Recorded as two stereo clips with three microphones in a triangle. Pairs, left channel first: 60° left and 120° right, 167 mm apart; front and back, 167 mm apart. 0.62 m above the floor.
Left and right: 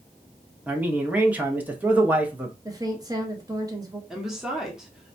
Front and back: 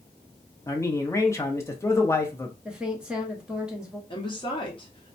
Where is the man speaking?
50° right, 0.7 m.